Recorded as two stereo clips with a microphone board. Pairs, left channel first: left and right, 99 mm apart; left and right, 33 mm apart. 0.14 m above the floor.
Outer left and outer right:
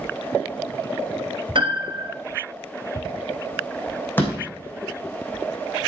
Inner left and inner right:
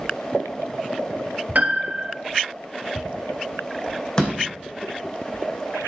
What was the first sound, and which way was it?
A piano, 55° right (ahead or behind).